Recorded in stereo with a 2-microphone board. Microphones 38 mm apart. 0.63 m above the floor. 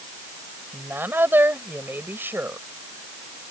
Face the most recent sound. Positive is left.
turn(degrees=-70)  # may be behind; listen again after turning